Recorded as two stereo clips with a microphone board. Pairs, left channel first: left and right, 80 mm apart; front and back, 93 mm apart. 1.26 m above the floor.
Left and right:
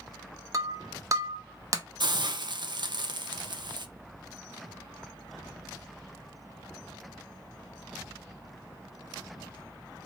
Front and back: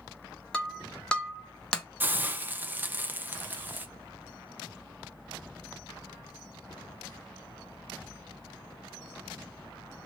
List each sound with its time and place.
0.5 s breaking glass: 75° right, 0.7 m
2.0 s a hiss: 110° right, 0.5 m